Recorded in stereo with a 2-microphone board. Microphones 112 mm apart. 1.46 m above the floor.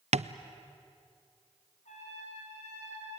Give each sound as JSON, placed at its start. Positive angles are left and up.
{"t": 0.1, "sound": "tapping", "side_deg": -75, "distance_m": 0.6}
{"t": 1.9, "sound": "a trumpet", "side_deg": 90, "distance_m": 7.5}